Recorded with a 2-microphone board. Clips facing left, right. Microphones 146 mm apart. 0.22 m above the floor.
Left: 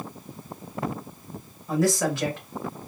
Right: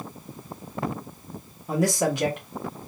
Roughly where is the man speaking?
Centre.